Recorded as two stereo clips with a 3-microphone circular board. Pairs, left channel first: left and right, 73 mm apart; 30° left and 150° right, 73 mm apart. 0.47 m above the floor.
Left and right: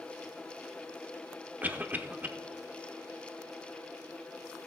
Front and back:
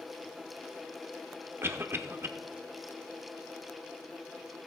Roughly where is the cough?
Behind right.